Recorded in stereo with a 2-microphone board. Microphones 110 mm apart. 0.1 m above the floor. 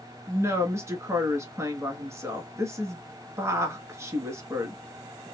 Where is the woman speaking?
25° right (ahead or behind), 1.1 m.